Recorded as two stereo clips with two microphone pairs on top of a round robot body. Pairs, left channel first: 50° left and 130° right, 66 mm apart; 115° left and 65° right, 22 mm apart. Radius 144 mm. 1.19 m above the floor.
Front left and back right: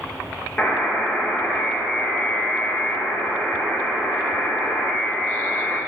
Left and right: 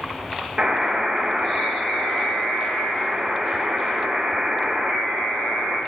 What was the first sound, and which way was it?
A buzzer, 25° right.